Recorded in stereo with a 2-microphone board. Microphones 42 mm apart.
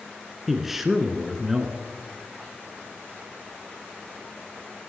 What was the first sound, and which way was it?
A man speaking, 5° right (ahead or behind).